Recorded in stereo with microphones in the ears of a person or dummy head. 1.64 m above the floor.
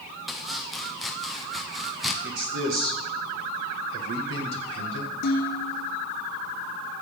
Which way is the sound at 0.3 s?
Centre (ahead or behind).